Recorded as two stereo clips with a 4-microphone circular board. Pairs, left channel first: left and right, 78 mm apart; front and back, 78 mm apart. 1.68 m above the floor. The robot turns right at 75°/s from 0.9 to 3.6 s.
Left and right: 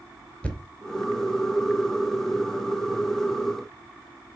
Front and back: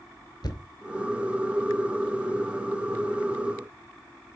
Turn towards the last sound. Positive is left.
turn(degrees=-135)